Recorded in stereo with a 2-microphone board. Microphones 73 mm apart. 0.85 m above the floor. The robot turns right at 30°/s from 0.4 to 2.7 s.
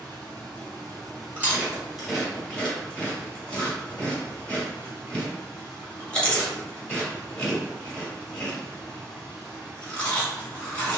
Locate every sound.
0.0 s running water: 100° right, 1.6 m; by 11.0 s 30° right, 1.6 m
1.4 s chewing: 25° right (ahead or behind), 1.4 m; by 11.0 s 15° left (ahead or behind), 1.4 m